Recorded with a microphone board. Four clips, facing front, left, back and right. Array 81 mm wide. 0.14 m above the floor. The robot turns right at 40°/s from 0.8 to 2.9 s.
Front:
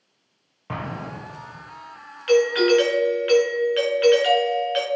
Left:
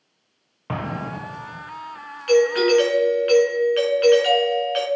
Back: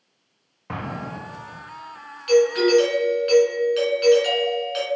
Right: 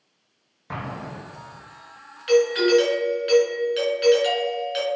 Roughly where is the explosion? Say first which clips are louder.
Left 5 dB, even; left.